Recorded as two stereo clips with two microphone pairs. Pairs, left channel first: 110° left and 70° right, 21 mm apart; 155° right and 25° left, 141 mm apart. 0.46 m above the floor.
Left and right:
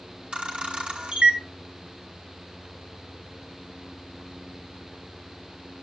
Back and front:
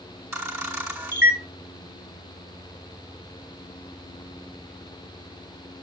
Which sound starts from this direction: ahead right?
A camera shutter, at 0.3 s.